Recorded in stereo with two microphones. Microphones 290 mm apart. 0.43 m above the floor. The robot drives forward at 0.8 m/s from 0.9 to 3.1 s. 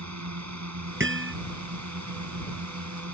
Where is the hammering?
40° right (ahead or behind); by 1.3 s 45° right (ahead or behind).